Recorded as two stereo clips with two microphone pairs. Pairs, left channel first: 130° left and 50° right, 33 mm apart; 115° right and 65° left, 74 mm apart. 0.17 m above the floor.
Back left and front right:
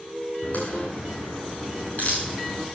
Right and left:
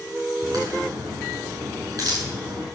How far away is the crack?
About 8.5 m.